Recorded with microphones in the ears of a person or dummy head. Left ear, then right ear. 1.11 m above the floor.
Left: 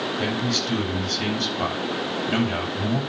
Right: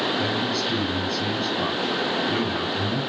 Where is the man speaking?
75° left (ahead or behind), 8 m.